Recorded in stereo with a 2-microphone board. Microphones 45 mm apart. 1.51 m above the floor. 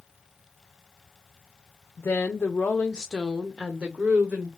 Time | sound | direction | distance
2.0 | a woman speaking | 65° left (ahead or behind) | 0.8 m